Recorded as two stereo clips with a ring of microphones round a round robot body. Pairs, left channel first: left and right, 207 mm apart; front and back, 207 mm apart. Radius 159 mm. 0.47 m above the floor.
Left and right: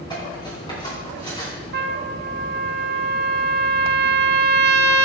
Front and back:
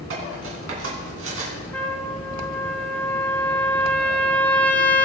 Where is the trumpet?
80° right, 0.7 m.